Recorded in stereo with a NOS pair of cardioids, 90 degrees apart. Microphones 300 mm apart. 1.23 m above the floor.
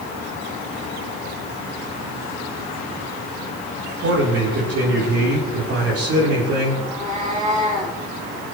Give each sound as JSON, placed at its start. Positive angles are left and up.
{"t": 4.0, "sound": "a man speaking", "azimuth_deg": -50, "distance_m": 4.5}
{"t": 6.8, "sound": "a cat meowing", "azimuth_deg": -25, "distance_m": 5.5}